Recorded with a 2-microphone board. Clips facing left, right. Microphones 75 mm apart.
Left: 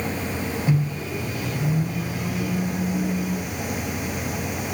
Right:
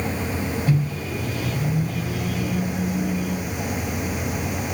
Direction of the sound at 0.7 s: 15° left (ahead or behind).